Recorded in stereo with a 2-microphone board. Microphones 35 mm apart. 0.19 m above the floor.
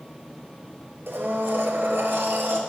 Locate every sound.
1.1 s a blender: 75° right (ahead or behind), 1.5 m